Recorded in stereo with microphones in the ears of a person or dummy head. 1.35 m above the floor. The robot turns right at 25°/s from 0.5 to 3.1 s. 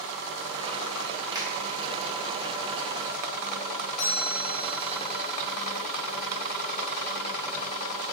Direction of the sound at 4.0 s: 75° left (ahead or behind).